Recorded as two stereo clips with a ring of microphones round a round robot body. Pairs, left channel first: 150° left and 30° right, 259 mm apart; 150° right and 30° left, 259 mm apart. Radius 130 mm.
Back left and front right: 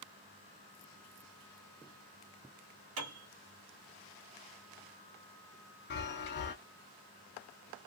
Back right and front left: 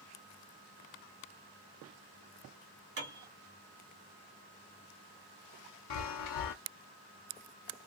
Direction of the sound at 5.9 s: 160° right.